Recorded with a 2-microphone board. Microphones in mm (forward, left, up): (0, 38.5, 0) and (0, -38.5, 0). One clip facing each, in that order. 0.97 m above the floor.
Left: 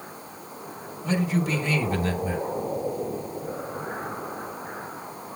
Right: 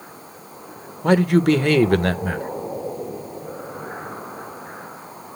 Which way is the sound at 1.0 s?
60° right (ahead or behind).